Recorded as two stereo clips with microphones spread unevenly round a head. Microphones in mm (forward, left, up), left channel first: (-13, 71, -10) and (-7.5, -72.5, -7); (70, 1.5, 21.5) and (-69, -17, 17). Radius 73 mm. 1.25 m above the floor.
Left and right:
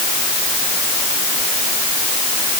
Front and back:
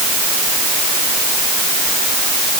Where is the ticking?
No ticking in this recording.